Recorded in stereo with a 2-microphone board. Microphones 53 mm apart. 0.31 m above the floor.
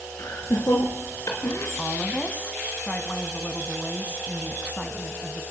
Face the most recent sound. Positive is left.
turn(degrees=25)  # may be behind; listen again after turning